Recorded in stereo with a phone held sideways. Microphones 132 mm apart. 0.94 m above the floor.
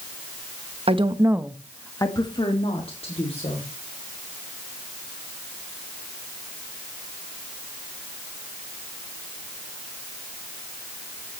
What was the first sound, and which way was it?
A woman speaking, 45° right (ahead or behind).